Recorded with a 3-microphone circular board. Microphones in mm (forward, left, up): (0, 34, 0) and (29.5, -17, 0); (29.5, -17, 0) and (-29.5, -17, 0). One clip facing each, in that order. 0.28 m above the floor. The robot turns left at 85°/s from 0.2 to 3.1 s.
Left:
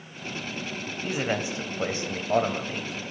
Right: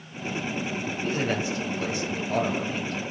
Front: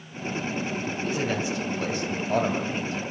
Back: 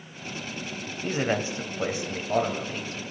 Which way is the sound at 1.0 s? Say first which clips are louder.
Even, back 3 dB; 160° right.